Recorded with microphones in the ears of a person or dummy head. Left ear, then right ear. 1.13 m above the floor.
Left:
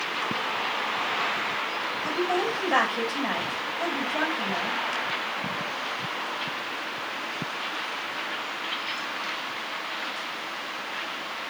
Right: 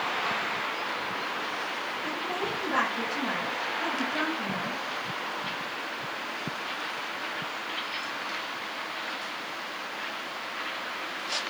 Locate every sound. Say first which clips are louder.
2.0 s a woman speaking: left 8 dB; 40° left (ahead or behind), 5.5 m